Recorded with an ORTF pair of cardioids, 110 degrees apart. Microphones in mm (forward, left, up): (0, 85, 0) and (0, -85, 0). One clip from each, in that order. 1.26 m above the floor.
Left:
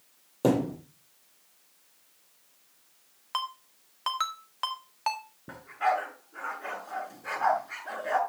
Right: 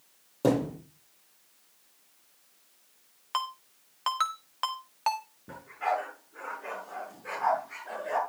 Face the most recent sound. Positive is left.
turn(degrees=35)